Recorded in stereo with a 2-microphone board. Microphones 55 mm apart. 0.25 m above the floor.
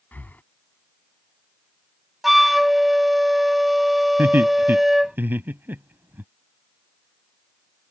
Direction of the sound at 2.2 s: 5° right (ahead or behind).